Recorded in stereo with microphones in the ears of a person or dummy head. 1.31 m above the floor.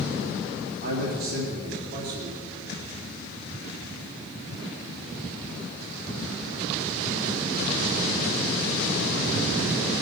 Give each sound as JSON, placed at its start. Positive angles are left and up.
{"t": 0.8, "sound": "a man speaking", "side_deg": -55, "distance_m": 3.0}